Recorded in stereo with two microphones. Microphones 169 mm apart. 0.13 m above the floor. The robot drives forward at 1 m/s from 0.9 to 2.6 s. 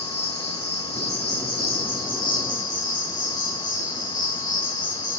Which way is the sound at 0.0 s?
80° left.